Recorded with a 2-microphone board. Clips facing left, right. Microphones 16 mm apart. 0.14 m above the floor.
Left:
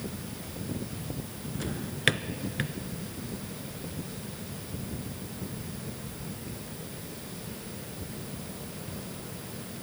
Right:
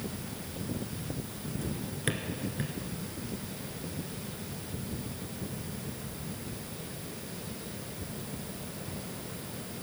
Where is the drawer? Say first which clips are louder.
Left 8 dB; 50° left (ahead or behind), 0.6 m.